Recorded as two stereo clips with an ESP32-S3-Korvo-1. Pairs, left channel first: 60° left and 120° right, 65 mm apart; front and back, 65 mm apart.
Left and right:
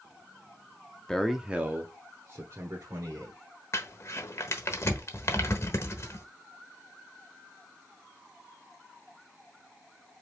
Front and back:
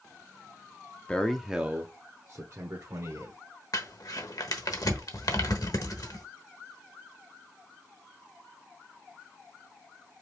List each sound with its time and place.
1.1 s a man speaking: straight ahead, 0.7 m; by 3.4 s 150° right, 1.8 m
3.7 s crumpling: 15° left, 1.0 m